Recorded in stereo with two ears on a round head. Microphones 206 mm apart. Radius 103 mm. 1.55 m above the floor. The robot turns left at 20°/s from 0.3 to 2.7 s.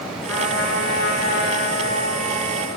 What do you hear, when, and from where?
0.3 s a trumpet: 80° left, 5.5 m; by 2.7 s 35° left, 5.5 m